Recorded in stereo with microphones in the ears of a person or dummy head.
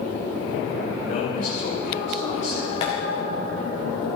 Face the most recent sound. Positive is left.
turn(degrees=35)  # may be behind; listen again after turning